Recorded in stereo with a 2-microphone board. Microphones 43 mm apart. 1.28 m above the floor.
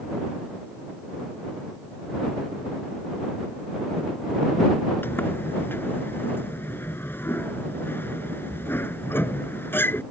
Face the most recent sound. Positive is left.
turn(degrees=60)  # may be behind; listen again after turning